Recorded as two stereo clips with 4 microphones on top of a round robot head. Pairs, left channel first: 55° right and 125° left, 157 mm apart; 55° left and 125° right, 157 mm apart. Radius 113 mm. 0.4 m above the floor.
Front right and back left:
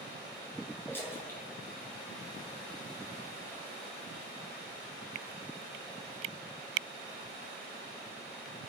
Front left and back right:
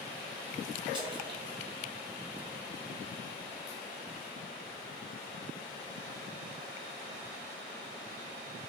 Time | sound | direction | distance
0.9 | a splash | 120° right | 1.5 m